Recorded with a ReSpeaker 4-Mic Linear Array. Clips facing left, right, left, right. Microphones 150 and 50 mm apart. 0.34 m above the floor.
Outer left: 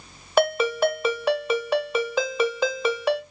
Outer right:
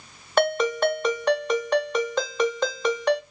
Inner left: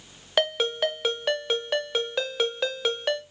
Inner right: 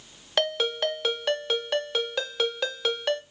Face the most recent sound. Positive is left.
turn(degrees=5)  # may be behind; listen again after turning